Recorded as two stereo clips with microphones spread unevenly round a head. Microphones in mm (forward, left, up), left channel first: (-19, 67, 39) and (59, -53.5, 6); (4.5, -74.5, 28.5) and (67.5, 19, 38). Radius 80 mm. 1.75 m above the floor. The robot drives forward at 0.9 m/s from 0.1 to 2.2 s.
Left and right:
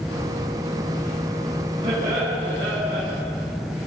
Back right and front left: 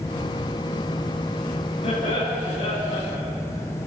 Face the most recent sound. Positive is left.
turn(degrees=-115)